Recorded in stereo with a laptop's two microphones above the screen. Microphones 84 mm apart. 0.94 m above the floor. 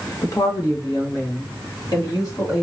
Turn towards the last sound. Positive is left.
turn(degrees=50)  # may be behind; listen again after turning